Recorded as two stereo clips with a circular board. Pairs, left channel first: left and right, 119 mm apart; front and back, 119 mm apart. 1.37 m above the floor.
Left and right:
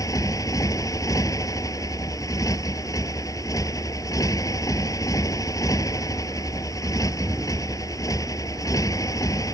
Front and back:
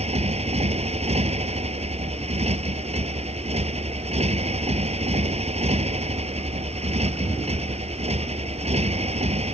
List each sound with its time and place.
0.0 s a motorcycle: 150° left